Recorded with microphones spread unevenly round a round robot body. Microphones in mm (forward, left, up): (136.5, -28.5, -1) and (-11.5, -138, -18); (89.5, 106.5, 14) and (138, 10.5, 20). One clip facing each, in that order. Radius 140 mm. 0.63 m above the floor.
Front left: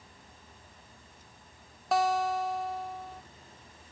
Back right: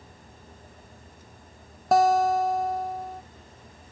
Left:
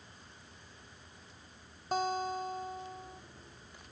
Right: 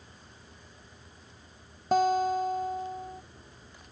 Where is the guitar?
100° right.